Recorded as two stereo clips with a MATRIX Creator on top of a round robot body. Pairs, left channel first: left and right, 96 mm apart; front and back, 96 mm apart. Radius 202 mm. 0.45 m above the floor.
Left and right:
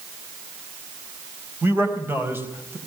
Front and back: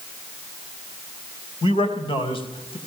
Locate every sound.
1.6 s a man speaking: 20° right, 4 m